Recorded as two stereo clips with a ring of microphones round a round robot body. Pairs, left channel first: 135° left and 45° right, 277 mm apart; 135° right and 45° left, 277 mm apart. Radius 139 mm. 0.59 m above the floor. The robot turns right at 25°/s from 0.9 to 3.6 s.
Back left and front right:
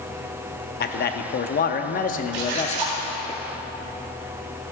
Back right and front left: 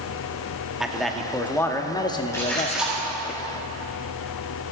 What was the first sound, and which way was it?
A man speaking, 130° left.